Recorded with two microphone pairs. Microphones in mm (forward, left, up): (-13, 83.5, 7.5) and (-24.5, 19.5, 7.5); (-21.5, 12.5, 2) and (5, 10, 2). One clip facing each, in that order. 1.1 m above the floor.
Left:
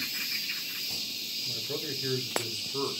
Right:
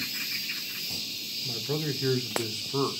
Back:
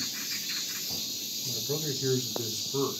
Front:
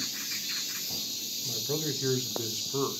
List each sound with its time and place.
1.4 s a man speaking: 75° right, 0.9 m